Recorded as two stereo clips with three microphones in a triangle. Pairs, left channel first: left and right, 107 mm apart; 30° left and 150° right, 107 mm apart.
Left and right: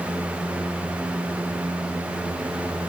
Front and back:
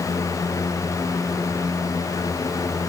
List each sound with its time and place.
Only background noise.